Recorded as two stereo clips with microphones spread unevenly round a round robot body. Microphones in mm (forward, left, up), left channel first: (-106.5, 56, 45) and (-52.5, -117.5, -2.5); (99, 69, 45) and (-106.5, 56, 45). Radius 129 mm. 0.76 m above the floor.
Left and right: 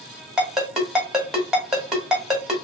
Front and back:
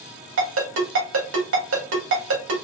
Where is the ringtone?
160° right, 2 m.